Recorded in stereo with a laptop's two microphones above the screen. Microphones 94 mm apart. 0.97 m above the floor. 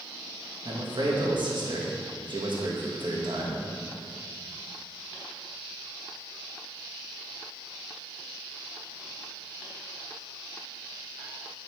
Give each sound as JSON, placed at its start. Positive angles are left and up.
{"t": 0.7, "sound": "a man speaking", "side_deg": -55, "distance_m": 1.4}